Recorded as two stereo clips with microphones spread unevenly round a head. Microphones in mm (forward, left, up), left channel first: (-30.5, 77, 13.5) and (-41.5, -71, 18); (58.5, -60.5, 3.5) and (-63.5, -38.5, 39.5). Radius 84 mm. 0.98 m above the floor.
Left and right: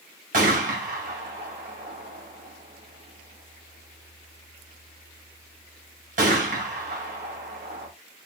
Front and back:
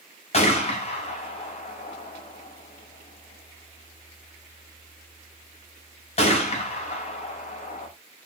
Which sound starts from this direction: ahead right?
A gunshot, at 0.3 s.